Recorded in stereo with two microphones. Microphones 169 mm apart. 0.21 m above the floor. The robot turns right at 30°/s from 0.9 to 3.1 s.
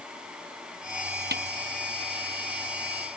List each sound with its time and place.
1.3 s a snare drum: 75° right (ahead or behind)